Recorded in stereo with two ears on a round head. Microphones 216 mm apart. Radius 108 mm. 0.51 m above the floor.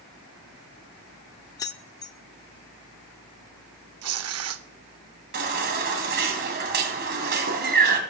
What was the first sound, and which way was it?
Keys jangling, 15° left (ahead or behind).